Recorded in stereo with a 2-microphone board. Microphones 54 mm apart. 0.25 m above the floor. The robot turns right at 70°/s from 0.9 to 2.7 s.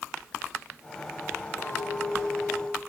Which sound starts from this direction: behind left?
A clink, at 1.6 s.